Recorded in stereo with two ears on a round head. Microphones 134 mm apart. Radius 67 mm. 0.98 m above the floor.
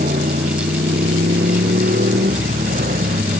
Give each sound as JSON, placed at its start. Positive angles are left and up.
{"t": 0.0, "sound": "a motorcycle", "side_deg": -55}